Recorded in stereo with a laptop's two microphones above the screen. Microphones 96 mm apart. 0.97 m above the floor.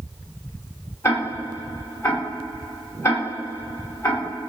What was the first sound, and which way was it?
Ticking, 30° left (ahead or behind).